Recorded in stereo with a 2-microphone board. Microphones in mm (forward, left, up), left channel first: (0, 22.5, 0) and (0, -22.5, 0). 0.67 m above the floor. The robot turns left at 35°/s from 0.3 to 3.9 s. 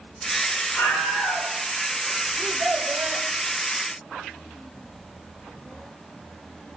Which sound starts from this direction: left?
A scream, at 0.7 s.